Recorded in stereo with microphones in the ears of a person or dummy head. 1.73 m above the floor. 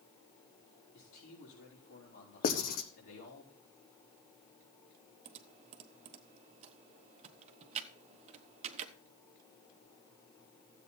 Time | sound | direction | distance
0.9 | a man speaking | 70° left (ahead or behind) | 4.5 m
2.4 | writing | 45° left (ahead or behind) | 1.0 m
5.2 | typing on a keyboard | 40° right (ahead or behind) | 0.9 m